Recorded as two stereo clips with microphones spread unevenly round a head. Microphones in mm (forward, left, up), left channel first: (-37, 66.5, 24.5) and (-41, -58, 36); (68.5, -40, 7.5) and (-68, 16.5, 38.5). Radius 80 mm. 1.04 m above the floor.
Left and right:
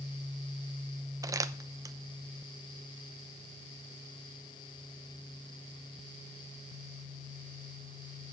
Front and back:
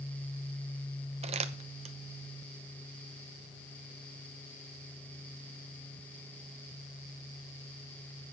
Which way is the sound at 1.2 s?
155° right.